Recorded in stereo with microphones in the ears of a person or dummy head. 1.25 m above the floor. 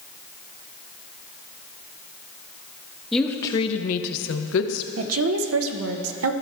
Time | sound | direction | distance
3.1 | a woman speaking | centre (ahead or behind) | 0.5 m
5.0 | a woman speaking | 85° right | 0.7 m